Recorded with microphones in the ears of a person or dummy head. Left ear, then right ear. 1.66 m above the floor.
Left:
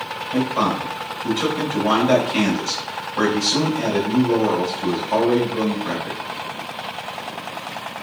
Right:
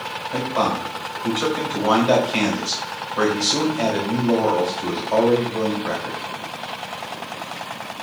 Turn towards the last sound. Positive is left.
turn(degrees=-25)  # may be behind; listen again after turning